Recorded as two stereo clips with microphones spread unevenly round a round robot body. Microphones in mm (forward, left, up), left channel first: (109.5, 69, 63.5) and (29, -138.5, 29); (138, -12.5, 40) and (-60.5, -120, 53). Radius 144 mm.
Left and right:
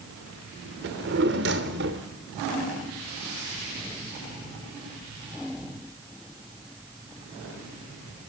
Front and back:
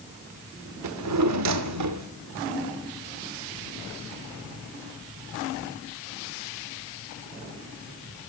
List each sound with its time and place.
0.8 s a drawer: 165° right, 1.1 m